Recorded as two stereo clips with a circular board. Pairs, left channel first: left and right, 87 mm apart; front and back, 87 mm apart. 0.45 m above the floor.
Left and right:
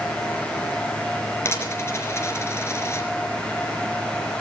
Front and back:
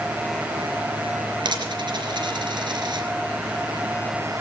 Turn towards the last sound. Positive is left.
turn(degrees=150)